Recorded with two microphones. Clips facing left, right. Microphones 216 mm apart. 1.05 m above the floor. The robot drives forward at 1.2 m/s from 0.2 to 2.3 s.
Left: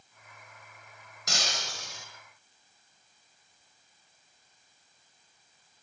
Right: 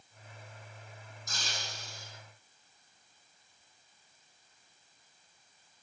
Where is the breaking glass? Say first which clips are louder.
Left 7 dB; 75° left (ahead or behind), 5 m; by 2.1 s 80° left, 5 m.